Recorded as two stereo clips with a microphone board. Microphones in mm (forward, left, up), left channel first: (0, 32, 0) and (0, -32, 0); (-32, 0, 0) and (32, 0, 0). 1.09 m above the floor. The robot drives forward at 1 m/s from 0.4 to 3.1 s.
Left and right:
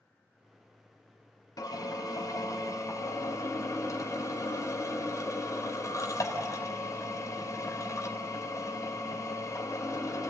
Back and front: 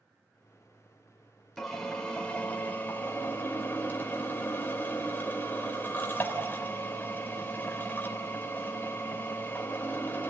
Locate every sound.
1.6 s a drill: 90° left, 3 m; by 10.3 s 120° left, 3.5 m